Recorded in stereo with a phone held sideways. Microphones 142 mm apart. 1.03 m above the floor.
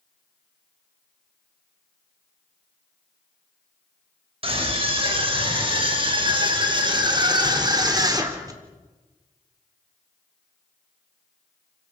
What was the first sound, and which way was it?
A scream, 40° right (ahead or behind).